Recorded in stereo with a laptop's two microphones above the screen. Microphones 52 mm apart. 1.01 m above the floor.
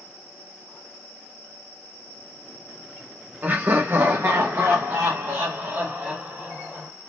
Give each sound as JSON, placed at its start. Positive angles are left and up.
{"t": 3.4, "sound": "laughter", "side_deg": -35, "distance_m": 0.7}